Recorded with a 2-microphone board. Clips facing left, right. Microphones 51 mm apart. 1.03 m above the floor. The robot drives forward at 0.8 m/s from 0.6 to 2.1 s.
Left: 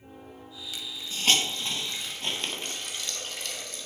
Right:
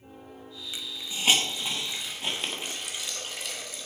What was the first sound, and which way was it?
A hiss, 20° right (ahead or behind).